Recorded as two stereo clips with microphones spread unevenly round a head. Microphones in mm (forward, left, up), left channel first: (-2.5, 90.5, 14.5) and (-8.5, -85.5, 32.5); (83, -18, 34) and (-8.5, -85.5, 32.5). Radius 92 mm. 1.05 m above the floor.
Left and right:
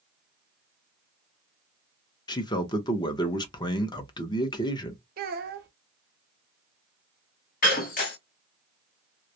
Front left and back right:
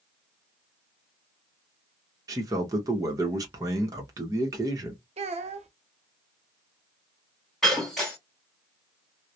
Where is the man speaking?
150° left, 0.7 m.